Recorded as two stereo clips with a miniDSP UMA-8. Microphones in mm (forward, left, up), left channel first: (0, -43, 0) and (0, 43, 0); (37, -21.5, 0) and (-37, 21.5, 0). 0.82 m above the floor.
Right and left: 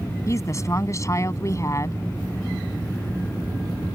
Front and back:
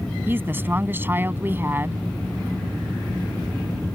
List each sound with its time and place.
0.3 s a woman speaking: 145° right